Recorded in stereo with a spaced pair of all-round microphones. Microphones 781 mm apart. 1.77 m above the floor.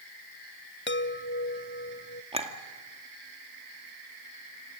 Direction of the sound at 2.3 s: 5° right (ahead or behind).